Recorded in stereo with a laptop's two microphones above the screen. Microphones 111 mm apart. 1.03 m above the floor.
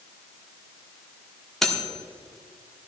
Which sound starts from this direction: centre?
Cutlery clinking, at 1.6 s.